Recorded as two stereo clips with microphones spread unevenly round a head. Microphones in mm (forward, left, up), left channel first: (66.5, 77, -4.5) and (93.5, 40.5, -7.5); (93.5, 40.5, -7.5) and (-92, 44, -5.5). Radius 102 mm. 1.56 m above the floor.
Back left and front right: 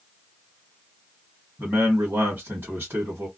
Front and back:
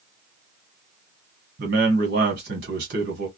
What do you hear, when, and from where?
1.6 s a man speaking: 135° right, 1.2 m